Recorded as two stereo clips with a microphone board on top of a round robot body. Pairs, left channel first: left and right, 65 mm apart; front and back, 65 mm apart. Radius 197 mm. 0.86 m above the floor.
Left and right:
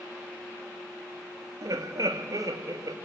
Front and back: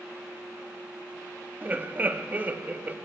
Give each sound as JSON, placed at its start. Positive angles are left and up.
{"t": 1.6, "sound": "laughter", "azimuth_deg": -120, "distance_m": 1.7}